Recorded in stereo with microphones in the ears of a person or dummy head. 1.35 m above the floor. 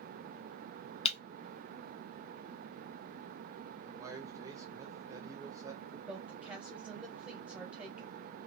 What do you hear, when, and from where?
1.1 s breaking glass: 35° left (ahead or behind), 1.2 m
3.9 s a man speaking: 20° right (ahead or behind), 0.9 m
6.1 s a woman speaking: 5° right (ahead or behind), 1.3 m